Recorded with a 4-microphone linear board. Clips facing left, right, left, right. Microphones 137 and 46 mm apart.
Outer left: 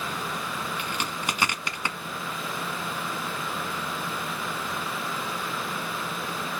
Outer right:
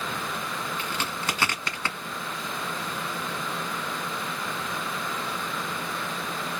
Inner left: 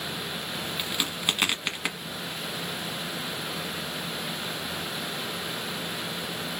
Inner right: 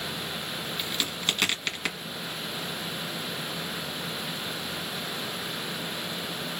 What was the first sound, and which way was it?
A crack, 15° left (ahead or behind).